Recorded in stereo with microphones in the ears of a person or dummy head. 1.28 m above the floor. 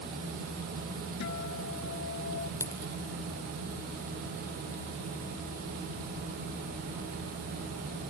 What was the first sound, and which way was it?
A guitar, 65° left (ahead or behind).